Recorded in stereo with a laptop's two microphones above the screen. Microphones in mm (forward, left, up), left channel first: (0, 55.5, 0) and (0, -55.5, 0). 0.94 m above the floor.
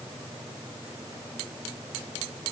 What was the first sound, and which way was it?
Only background noise.